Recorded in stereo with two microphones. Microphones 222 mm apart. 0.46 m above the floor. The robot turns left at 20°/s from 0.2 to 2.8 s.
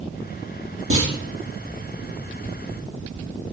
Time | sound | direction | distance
0.9 | a clunk | 70° right (ahead or behind) | 4.5 m